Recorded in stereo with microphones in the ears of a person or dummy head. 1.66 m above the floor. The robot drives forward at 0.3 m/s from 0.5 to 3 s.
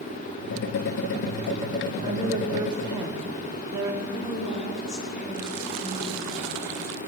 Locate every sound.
2.0 s a woman speaking: 30° right (ahead or behind), 1.2 m; by 4.0 s 25° right (ahead or behind), 1.4 m
4.1 s a woman speaking: 70° left (ahead or behind), 7.5 m